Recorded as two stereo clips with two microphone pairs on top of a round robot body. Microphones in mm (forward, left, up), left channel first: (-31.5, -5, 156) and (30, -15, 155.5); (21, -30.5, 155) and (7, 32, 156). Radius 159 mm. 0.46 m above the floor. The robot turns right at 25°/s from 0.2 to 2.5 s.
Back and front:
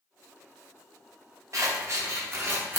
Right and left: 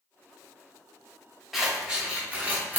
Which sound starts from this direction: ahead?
Scissors, at 1.5 s.